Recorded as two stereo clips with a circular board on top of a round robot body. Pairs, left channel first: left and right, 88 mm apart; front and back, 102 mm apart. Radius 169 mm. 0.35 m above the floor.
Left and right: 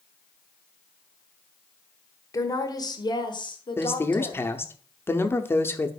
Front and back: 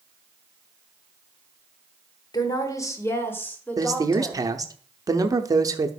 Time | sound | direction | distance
2.3 | a woman speaking | 45° left | 1.5 m
3.8 | a man speaking | 140° left | 1.0 m